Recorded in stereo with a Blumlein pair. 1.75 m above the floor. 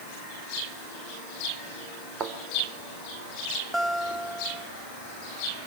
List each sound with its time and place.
2.2 s a thud: 25° right, 3.5 m
3.7 s a guitar: 5° right, 1.3 m